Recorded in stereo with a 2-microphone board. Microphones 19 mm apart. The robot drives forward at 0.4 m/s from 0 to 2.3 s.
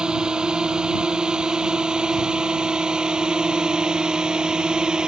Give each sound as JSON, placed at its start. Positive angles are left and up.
{"t": 0.0, "sound": "a drone", "side_deg": -40}